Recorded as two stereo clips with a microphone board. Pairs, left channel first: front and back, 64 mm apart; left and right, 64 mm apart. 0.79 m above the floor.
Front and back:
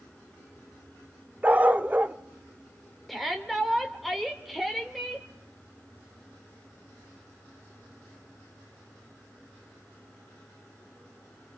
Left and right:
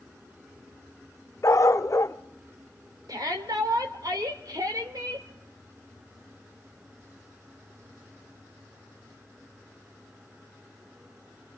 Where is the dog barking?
120° left, 0.5 m.